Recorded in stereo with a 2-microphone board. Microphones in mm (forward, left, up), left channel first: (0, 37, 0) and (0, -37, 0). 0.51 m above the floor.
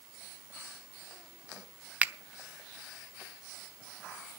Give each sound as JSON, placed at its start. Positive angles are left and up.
{"t": 2.0, "sound": "a finger snap", "side_deg": -20, "distance_m": 0.6}